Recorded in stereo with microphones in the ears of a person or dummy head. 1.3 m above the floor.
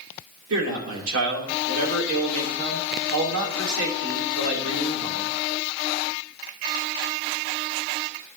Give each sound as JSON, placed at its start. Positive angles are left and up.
{"t": 0.5, "sound": "a man speaking", "side_deg": -80, "distance_m": 2.5}